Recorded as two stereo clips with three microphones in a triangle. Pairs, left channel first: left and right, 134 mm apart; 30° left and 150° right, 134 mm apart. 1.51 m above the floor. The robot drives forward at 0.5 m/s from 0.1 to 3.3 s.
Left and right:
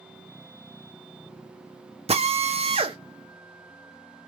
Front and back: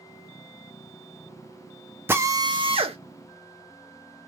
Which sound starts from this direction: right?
A drill, at 2.1 s.